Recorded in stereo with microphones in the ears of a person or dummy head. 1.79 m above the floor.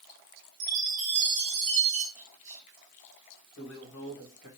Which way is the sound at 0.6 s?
65° right (ahead or behind).